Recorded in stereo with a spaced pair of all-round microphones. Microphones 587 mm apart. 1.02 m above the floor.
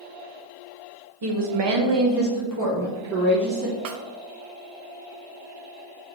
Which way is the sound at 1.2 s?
40° right (ahead or behind).